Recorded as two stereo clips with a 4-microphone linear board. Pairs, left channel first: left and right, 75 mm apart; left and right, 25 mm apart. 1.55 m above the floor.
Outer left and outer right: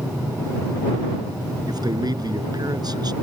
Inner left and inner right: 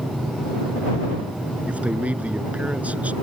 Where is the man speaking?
65° right (ahead or behind).